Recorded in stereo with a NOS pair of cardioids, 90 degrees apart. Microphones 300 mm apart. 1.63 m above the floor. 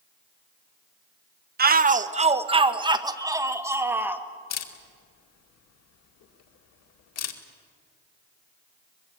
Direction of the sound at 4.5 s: 60° left.